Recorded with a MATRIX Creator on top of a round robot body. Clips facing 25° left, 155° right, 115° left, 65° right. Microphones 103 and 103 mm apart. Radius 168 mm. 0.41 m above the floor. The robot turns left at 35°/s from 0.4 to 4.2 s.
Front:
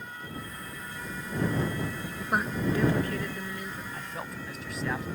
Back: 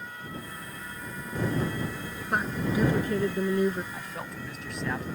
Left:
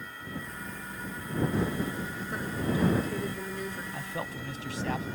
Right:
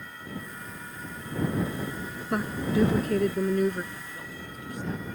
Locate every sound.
2.3 s a woman speaking: 60° right; by 3.8 s 115° right
3.9 s a man speaking: 120° left; by 5.1 s 110° left